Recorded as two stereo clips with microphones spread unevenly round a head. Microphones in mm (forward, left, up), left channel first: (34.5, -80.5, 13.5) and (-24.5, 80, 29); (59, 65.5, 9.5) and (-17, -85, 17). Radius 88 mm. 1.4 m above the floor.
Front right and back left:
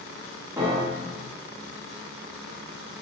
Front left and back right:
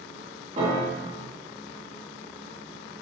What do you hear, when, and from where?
0.6 s a piano: 175° right, 2.5 m